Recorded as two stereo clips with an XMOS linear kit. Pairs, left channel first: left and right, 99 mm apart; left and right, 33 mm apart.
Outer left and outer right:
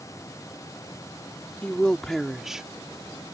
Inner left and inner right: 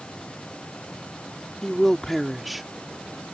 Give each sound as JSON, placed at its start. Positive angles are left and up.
{"t": 1.6, "sound": "a woman speaking", "side_deg": 15}